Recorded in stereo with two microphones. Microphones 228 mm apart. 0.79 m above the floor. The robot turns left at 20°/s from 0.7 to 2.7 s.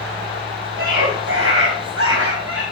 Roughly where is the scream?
Ahead right.